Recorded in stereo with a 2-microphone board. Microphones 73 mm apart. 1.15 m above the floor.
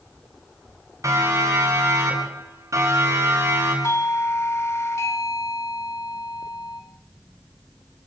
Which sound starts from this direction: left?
A doorbell, at 3.8 s.